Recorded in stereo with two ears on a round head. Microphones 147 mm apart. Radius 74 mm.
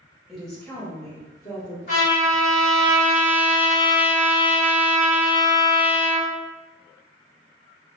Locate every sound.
0.3 s a woman speaking: 5° right (ahead or behind), 0.8 m; by 1.8 s 30° left (ahead or behind), 1.3 m
1.9 s a trumpet: 50° left (ahead or behind), 1.7 m